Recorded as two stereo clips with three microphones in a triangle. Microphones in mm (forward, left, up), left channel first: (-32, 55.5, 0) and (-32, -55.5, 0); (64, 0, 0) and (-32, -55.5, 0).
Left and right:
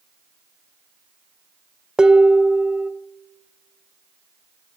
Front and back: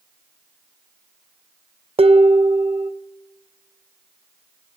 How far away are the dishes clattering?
About 0.5 m.